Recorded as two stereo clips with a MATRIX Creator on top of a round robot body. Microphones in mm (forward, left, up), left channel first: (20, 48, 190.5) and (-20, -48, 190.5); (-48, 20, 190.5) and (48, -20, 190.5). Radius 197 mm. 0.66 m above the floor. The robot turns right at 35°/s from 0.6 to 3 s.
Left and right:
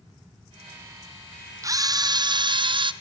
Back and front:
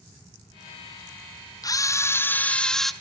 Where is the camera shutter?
160° right, 0.7 m; by 2.9 s 115° right, 0.7 m.